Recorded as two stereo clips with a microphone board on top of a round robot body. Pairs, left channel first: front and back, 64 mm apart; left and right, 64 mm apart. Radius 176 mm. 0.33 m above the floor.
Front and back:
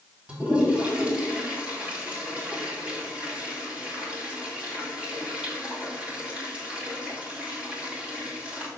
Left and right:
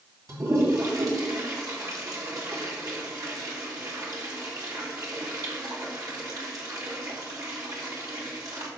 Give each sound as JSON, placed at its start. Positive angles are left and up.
{"t": 0.3, "sound": "a toilet flushing", "azimuth_deg": -110, "distance_m": 3.0}